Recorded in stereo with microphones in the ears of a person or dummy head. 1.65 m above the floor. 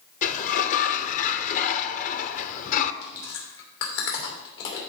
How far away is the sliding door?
About 0.6 m.